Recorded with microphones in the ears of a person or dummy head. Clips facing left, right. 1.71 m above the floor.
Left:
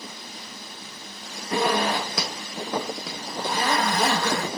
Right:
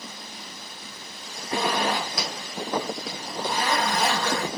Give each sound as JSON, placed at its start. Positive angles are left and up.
{"t": 1.5, "sound": "a zipper", "side_deg": 50, "distance_m": 0.8}